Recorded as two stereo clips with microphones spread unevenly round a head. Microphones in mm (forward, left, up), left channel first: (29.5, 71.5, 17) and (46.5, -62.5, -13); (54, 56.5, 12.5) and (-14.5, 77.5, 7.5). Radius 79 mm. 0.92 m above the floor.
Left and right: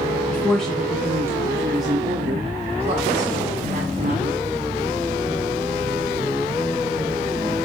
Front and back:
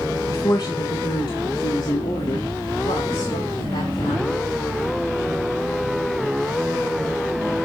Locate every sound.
0.3 s a woman speaking: 20° left, 1.2 m; by 4.4 s 55° right, 2.5 m